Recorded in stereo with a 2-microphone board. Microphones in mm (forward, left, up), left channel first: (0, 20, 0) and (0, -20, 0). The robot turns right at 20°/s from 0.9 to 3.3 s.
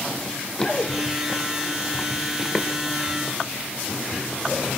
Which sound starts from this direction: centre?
Running footsteps, at 0.2 s.